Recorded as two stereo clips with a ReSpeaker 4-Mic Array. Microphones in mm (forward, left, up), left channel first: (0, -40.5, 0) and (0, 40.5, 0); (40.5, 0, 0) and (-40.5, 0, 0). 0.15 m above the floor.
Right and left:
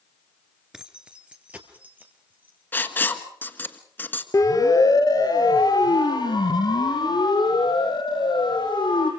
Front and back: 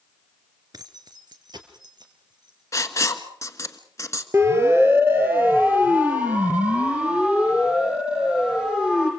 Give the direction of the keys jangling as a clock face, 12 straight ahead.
6 o'clock.